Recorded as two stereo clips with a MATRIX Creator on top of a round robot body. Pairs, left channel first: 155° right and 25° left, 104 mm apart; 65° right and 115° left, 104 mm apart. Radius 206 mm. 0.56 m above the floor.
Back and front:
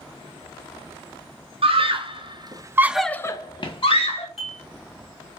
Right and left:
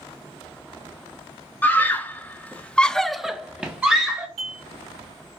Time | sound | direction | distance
1.6 | a scream | 5° left | 1.1 m
4.4 | dishes clattering | 115° left | 2.5 m